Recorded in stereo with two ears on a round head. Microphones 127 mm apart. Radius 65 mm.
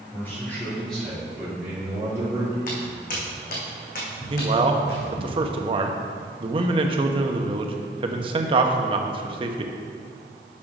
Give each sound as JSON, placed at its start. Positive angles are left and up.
{"t": 0.1, "sound": "a man speaking", "side_deg": 15, "distance_m": 3.5}
{"t": 2.7, "sound": "footsteps", "side_deg": 60, "distance_m": 3.5}
{"t": 4.3, "sound": "a man speaking", "side_deg": -40, "distance_m": 1.0}